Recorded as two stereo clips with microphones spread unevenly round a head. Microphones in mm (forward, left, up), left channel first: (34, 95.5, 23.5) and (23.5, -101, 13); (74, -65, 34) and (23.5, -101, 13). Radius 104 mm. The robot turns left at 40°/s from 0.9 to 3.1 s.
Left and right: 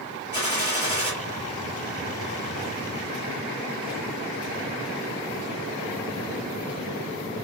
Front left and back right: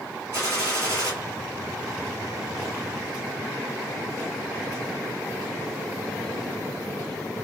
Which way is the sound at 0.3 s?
150° left.